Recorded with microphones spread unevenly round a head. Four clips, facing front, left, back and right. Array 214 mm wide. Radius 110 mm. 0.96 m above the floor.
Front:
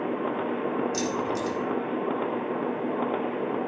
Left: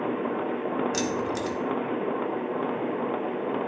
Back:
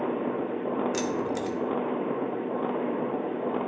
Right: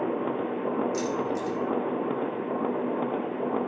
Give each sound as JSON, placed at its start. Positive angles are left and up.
{"t": 0.9, "sound": "keys jangling", "azimuth_deg": 105, "distance_m": 1.7}